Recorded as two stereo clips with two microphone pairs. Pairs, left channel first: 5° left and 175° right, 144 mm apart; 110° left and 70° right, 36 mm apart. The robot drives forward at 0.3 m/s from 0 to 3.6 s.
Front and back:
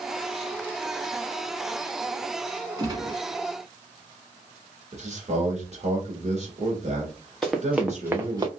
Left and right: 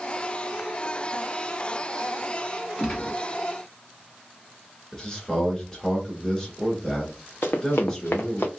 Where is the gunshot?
150° left, 1.5 m; by 3.2 s 155° left, 1.5 m.